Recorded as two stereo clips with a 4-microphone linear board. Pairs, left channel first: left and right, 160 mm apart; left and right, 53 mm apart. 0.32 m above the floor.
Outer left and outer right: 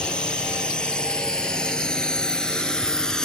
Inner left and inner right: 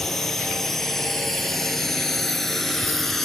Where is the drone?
5° left (ahead or behind).